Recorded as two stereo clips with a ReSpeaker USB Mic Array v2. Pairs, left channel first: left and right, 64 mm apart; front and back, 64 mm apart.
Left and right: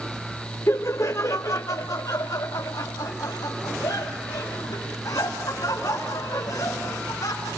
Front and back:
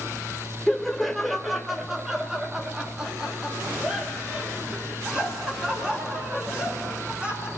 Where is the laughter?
80° left, 1.1 m; by 7.5 s 105° left, 4.5 m.